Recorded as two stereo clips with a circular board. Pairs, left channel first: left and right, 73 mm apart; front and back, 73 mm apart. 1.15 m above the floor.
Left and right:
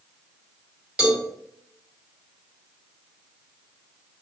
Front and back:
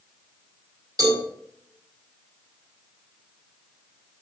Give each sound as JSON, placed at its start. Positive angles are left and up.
{"t": 1.0, "sound": "a cowbell", "azimuth_deg": -165, "distance_m": 4.0}